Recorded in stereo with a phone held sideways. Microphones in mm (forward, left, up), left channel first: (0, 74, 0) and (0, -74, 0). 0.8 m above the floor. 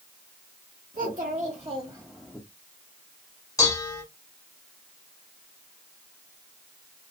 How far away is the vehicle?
I don't hear a vehicle.